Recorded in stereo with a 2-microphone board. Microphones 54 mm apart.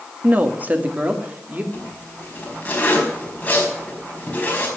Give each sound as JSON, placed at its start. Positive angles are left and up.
{"t": 0.2, "sound": "a woman speaking", "side_deg": -35, "distance_m": 1.4}
{"t": 1.7, "sound": "a zipper", "side_deg": 30, "distance_m": 4.5}